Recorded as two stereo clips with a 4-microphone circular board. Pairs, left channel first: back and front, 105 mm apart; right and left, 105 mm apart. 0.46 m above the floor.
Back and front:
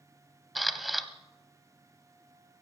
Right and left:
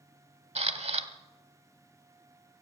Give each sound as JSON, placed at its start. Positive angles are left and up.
{"t": 0.6, "sound": "a camera shutter", "azimuth_deg": 90, "distance_m": 0.9}